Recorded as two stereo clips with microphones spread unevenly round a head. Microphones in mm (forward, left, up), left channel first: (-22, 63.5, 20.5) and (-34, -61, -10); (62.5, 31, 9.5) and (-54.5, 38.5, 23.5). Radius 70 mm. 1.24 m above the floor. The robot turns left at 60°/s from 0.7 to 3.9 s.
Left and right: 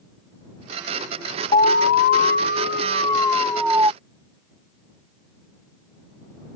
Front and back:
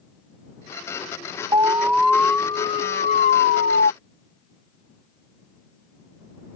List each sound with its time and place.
1.5 s an alarm: 120° left; by 3.9 s 25° right